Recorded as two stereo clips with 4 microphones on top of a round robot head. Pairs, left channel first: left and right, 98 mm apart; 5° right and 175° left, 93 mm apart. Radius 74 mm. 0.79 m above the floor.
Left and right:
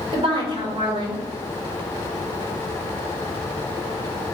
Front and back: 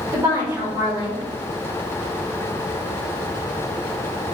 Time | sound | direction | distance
0.1 | a woman speaking | 115° right | 4 m